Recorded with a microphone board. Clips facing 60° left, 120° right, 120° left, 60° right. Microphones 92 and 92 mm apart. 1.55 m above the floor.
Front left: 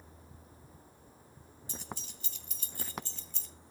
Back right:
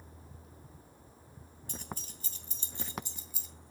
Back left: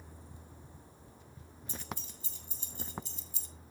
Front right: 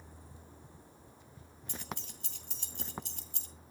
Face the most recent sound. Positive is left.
turn(degrees=-35)